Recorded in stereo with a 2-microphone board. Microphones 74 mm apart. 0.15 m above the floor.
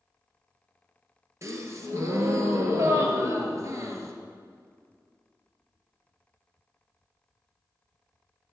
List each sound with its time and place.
1.4 s a gasp: 45° right (ahead or behind), 1.3 m